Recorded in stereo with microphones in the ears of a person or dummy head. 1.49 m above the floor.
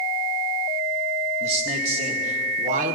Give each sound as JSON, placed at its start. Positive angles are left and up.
{"t": 1.4, "sound": "a man speaking", "side_deg": -35, "distance_m": 2.0}